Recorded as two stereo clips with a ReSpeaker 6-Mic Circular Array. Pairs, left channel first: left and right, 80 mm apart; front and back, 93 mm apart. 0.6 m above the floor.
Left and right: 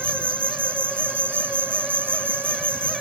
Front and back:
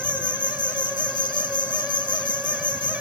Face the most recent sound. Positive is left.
turn(degrees=-25)